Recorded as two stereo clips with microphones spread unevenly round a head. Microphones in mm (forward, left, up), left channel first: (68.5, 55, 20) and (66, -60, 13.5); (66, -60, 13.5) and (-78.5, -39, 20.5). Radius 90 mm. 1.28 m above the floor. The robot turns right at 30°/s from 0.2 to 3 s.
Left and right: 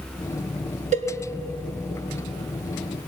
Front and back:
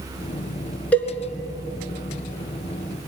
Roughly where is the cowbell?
Right.